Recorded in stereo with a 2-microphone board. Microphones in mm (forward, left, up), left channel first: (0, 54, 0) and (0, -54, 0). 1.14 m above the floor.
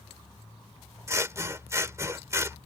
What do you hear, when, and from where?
1.1 s scissors: 25° right (ahead or behind)